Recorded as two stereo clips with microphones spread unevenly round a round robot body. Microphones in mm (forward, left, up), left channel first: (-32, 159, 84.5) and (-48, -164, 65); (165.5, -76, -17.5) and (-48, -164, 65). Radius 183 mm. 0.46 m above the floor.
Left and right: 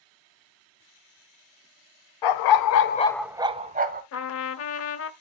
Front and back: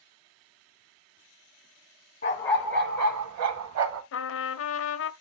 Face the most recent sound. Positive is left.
turn(degrees=40)